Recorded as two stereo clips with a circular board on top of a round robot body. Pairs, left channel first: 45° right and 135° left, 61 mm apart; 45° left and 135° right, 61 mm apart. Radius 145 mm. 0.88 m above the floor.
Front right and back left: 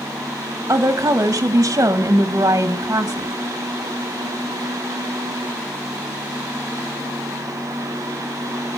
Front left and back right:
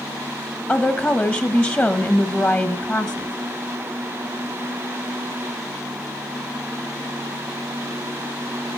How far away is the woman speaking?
About 1.3 m.